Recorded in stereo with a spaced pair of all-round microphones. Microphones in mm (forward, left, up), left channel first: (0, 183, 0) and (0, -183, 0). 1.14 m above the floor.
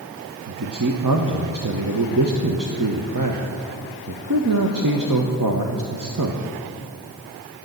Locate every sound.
0.5 s a man speaking: 60° right (ahead or behind), 1.0 m